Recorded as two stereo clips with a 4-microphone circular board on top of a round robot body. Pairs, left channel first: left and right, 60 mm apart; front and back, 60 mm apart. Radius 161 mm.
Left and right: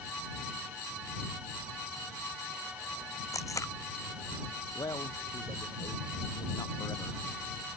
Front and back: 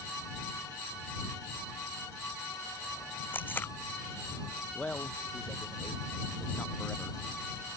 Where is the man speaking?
70° left.